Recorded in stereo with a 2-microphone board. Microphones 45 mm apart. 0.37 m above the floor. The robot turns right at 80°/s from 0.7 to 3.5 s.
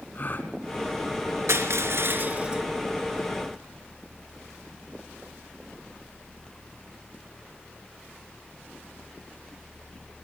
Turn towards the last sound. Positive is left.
turn(degrees=55)